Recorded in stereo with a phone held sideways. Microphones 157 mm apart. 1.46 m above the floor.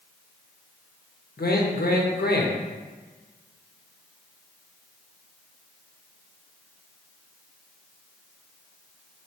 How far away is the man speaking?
About 0.7 m.